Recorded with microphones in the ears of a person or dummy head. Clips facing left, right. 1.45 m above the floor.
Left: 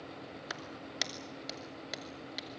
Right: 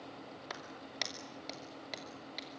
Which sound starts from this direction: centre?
A clap, at 0.5 s.